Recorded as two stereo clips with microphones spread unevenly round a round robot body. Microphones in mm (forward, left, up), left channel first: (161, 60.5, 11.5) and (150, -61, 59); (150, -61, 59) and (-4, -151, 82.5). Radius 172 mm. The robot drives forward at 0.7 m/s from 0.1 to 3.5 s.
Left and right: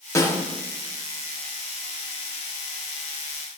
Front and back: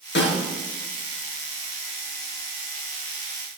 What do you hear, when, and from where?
0.1 s a snare drum: 20° left, 6 m